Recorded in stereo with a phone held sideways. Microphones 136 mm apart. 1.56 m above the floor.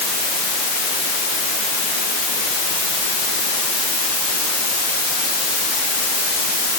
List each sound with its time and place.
Only background noise.